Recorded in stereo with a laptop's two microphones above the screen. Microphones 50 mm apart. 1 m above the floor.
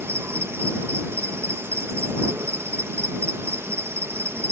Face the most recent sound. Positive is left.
turn(degrees=-60)  # may be behind; listen again after turning